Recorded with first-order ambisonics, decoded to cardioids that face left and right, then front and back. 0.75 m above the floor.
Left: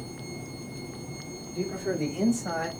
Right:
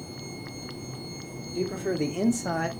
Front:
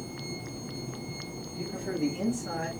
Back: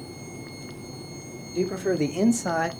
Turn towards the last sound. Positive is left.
turn(degrees=-170)